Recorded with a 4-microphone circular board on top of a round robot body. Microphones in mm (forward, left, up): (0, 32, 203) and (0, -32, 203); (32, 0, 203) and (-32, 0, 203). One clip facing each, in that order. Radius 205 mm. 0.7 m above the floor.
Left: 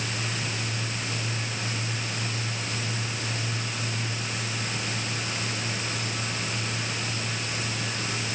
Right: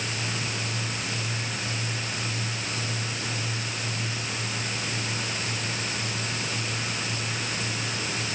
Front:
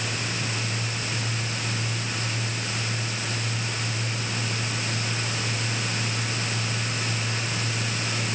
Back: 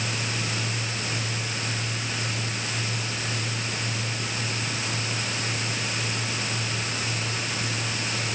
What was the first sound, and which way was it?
Only background noise.